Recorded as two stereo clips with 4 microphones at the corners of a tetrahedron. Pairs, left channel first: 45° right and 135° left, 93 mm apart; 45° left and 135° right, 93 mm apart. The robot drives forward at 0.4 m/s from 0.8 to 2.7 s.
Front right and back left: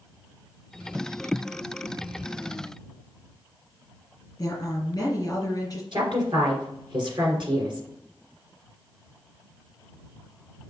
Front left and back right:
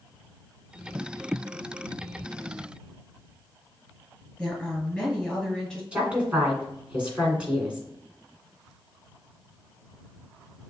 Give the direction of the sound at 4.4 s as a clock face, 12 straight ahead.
2 o'clock.